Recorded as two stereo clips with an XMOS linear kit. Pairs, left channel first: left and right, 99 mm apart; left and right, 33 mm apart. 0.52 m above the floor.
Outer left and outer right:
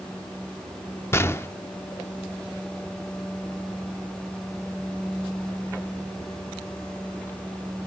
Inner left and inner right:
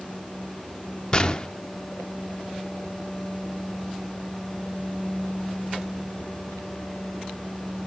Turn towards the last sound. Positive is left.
turn(degrees=25)  # may be behind; listen again after turning